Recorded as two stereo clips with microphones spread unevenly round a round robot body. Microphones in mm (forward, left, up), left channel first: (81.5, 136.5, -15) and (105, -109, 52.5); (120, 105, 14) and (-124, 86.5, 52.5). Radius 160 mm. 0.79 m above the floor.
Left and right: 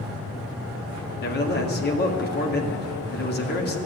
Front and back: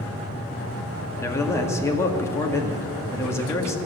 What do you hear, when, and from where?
1.2 s a man speaking: 75° left, 1.7 m